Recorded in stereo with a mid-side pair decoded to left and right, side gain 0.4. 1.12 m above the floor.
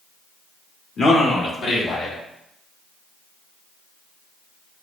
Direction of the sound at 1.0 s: 45° left.